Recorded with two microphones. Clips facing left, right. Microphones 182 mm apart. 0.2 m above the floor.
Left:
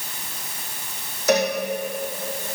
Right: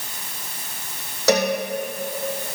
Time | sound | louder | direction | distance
1.3 | a cowbell | right 1 dB | 75° right (ahead or behind) | 2.5 m